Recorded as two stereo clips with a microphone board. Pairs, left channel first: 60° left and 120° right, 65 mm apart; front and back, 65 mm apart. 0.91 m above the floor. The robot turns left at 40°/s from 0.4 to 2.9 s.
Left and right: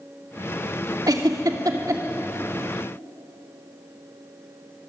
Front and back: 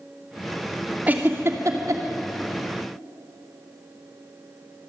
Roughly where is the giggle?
Behind right.